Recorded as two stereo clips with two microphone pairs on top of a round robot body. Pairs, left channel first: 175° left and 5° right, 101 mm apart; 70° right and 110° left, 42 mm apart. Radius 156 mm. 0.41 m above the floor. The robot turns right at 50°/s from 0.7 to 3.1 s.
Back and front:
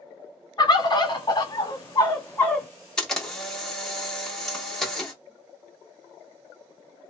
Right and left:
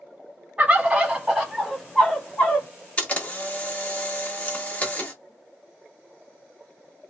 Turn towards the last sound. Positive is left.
turn(degrees=-110)